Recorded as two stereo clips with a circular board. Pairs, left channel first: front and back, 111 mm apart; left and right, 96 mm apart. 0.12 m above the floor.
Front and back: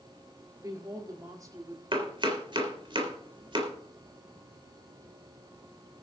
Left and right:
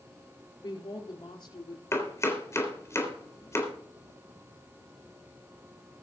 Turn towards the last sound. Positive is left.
turn(degrees=145)